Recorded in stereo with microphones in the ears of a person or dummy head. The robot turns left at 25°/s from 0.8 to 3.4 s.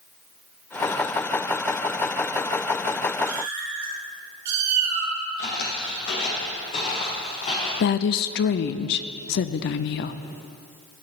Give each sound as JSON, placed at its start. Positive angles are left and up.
{"t": 3.2, "sound": "a cat meowing", "side_deg": -50, "distance_m": 2.0}
{"t": 5.4, "sound": "footsteps", "side_deg": 45, "distance_m": 2.0}
{"t": 7.8, "sound": "a woman speaking", "side_deg": 55, "distance_m": 0.6}